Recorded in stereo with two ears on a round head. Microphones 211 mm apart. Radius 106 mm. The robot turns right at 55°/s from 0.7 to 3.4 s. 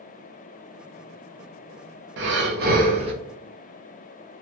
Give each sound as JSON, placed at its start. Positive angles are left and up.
{"t": 2.2, "sound": "breathing", "azimuth_deg": -80, "distance_m": 0.7}